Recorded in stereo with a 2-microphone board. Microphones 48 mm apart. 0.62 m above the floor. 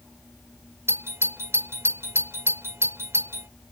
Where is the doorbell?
60° right (ahead or behind).